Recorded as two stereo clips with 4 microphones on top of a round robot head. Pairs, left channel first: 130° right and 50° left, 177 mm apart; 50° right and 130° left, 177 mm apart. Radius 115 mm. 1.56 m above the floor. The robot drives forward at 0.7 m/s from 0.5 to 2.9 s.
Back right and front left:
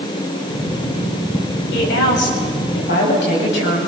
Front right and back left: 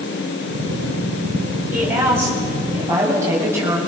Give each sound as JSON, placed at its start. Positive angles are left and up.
{"t": 1.7, "sound": "a woman speaking", "azimuth_deg": -150, "distance_m": 8.5}